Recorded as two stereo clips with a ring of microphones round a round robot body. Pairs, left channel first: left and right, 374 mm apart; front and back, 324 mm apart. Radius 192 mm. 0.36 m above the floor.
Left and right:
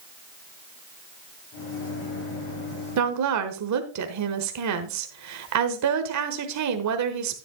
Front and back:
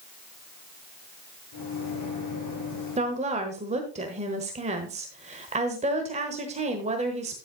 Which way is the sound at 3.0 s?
115° right.